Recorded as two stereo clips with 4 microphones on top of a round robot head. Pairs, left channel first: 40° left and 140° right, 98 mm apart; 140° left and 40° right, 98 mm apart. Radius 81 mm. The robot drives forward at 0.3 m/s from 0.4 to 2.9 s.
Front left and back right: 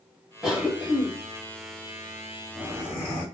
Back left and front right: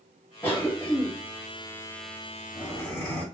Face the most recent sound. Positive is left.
turn(degrees=170)